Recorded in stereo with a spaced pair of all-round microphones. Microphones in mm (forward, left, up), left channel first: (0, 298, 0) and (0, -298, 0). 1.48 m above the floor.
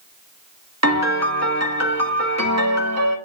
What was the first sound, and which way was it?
A piano, 25° right (ahead or behind).